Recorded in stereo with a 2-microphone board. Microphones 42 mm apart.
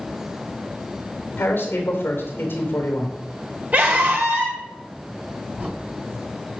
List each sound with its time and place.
1.4 s a man speaking: 65° left (ahead or behind), 3 m
3.7 s a scream: 45° right (ahead or behind), 3.5 m
5.6 s a crack: 35° right (ahead or behind), 3.5 m